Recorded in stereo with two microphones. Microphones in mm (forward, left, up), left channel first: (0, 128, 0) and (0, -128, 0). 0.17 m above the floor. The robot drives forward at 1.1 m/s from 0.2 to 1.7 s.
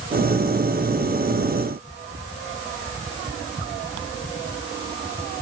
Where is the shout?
No shout in this recording.